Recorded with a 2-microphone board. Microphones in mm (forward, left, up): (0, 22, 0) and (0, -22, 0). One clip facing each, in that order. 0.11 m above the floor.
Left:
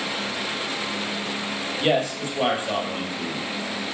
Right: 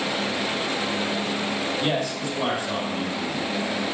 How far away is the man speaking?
About 2 m.